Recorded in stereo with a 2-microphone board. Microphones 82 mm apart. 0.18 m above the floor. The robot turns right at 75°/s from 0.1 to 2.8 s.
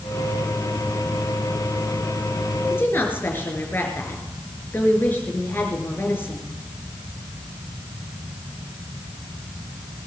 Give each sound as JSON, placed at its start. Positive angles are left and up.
{"t": 2.7, "sound": "a woman speaking", "side_deg": 30, "distance_m": 3.5}